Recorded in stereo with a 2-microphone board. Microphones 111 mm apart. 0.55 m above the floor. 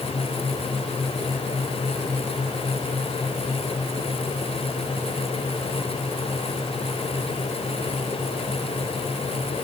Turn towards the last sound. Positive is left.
No sound to turn to.